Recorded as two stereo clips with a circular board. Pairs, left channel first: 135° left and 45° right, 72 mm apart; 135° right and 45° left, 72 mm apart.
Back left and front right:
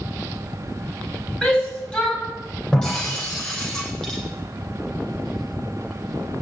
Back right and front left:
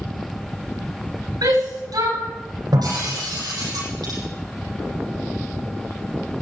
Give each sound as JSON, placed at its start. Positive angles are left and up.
{"t": 1.4, "sound": "a shout", "azimuth_deg": 60, "distance_m": 7.5}
{"t": 2.7, "sound": "breaking glass", "azimuth_deg": 55, "distance_m": 9.5}